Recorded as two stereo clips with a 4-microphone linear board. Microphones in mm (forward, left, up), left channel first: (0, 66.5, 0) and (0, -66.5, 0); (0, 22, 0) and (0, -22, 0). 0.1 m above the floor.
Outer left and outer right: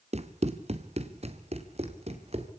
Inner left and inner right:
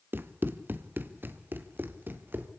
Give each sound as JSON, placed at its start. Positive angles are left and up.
{"t": 0.1, "sound": "running footsteps", "side_deg": -55, "distance_m": 1.6}